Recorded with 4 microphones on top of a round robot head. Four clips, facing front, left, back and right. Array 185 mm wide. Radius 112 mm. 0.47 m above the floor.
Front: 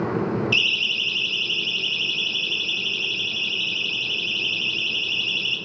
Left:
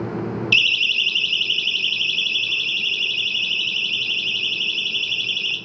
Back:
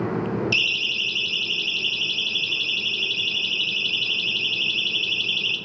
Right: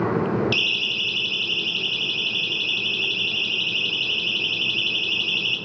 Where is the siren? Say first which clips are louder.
Left 3 dB, front 1 dB; 160° left, 3 m; by 5.6 s 150° left, 5.5 m.